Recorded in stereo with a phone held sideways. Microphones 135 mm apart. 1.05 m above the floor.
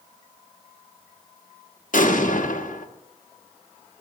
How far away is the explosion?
About 1.2 m.